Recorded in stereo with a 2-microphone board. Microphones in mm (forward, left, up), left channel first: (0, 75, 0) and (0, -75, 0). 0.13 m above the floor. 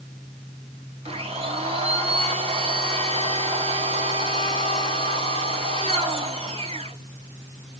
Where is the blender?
40° right (ahead or behind), 1.7 m.